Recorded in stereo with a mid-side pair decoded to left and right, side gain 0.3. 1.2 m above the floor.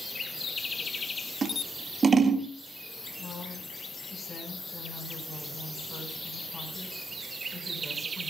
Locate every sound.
1.4 s scissors: 55° right, 2 m
3.2 s a woman speaking: 60° left, 5 m